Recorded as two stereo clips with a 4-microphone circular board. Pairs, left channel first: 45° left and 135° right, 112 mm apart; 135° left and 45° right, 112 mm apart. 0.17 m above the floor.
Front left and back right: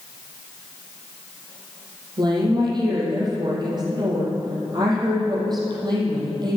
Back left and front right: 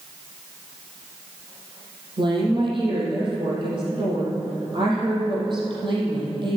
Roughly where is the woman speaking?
Right.